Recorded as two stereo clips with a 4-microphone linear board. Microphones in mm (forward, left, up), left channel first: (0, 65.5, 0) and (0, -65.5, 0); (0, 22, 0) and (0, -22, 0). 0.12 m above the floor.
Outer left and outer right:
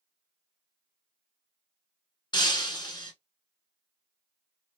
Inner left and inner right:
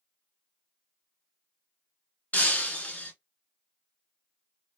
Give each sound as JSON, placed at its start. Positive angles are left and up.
{"t": 2.3, "sound": "breaking glass", "side_deg": 35, "distance_m": 0.8}